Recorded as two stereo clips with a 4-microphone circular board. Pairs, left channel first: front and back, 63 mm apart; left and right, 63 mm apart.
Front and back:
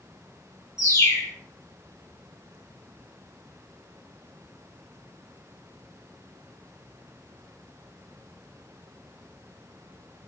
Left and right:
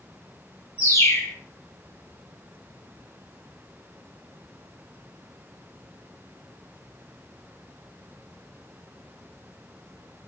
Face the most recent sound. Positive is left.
turn(degrees=40)